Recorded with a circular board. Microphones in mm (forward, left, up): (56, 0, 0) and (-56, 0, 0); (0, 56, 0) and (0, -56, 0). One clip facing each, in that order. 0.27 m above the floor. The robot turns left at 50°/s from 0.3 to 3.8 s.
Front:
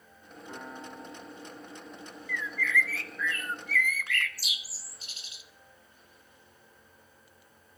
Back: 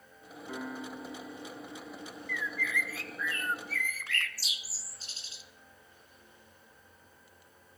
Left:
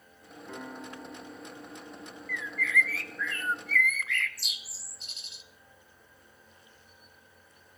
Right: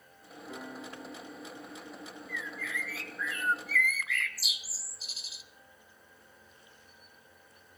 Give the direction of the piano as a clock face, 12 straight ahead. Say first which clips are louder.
Back 3 dB, left 2 dB; 9 o'clock.